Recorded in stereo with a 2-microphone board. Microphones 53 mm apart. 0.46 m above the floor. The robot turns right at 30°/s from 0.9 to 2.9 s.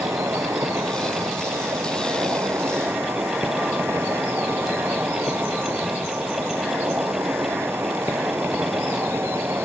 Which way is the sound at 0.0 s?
105° right.